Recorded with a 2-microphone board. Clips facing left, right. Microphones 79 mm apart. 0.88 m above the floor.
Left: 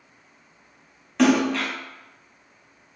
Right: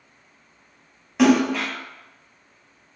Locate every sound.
1.2 s a splash: 10° right (ahead or behind), 1.0 m